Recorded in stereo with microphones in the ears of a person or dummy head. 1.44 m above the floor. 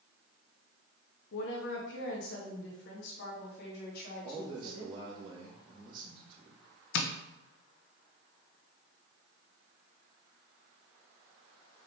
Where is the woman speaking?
70° left (ahead or behind), 0.9 m; by 5.0 s 65° left (ahead or behind), 2.5 m.